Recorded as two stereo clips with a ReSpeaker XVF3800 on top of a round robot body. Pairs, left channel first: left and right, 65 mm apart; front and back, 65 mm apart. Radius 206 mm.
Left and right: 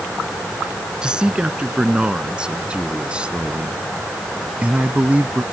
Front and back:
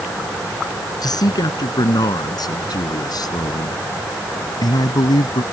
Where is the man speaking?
15° right; by 5.4 s 20° right.